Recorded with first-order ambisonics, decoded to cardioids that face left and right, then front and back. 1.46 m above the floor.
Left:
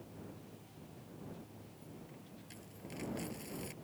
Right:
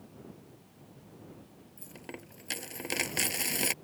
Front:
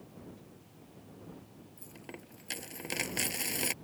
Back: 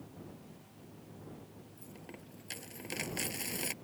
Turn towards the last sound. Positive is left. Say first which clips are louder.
# right 12 dB, front 4 dB
turn(degrees=-70)